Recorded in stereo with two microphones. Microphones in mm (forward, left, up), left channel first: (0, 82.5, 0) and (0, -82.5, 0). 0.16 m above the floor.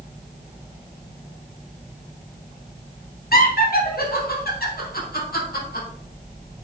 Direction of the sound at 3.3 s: 65° left (ahead or behind).